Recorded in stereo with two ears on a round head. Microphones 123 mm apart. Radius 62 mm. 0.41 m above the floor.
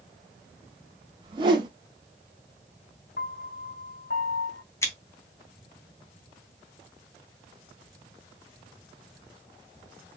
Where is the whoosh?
35° right (ahead or behind), 2 m.